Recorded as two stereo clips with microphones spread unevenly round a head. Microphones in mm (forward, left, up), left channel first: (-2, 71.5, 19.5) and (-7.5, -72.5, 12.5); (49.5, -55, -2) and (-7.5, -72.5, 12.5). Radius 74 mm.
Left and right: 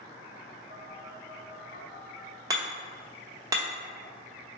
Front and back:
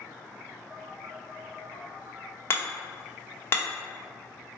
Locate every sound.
0.7 s a phone buzzing: 80° right, 1.7 m
2.5 s hammering: 30° right, 1.0 m